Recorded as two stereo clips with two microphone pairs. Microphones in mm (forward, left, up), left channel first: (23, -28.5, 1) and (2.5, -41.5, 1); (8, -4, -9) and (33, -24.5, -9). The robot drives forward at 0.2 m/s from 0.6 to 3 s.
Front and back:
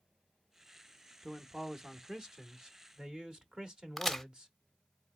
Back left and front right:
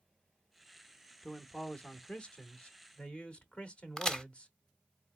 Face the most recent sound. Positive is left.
turn(degrees=100)